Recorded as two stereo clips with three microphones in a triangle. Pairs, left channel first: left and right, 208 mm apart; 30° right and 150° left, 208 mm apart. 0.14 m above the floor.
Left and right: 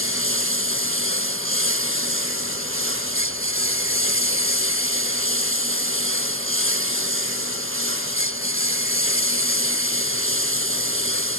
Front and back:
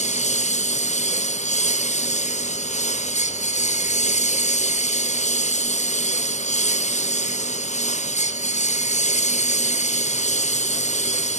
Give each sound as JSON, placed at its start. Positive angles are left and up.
{"t": 0.0, "sound": "a lawn mower", "azimuth_deg": -85}